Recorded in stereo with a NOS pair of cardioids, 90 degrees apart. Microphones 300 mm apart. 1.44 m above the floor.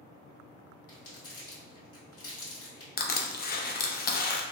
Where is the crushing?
30° left, 0.6 m.